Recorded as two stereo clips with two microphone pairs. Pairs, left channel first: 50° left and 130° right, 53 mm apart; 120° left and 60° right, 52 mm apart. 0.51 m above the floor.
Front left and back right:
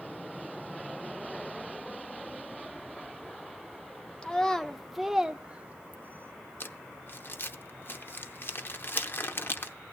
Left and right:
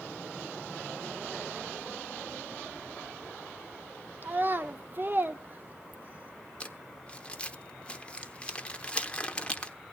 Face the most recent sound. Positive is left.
turn(degrees=65)